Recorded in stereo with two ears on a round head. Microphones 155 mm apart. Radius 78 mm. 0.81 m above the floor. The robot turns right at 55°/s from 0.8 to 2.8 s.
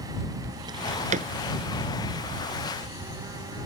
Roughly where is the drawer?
Right.